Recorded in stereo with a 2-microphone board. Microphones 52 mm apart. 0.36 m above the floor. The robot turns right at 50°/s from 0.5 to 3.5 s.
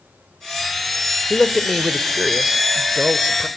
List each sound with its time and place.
1.3 s a man speaking: 10° left (ahead or behind), 1.0 m; by 3.5 s 25° right (ahead or behind), 1.0 m